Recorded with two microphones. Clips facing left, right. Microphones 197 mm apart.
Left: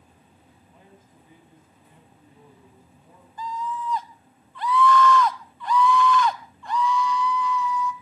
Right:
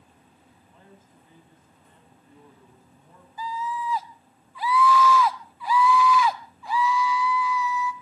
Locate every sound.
0.7 s a man speaking: 15° left (ahead or behind), 5.5 m
3.4 s a scream: 5° right (ahead or behind), 1.2 m